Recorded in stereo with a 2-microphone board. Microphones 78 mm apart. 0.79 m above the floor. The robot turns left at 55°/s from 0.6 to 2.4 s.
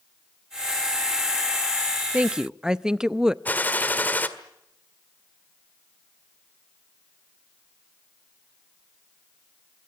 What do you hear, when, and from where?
2.1 s a woman speaking: 20° right (ahead or behind), 0.5 m; by 3.4 s 10° right (ahead or behind), 0.5 m
3.5 s a gunshot: 20° left (ahead or behind), 1.6 m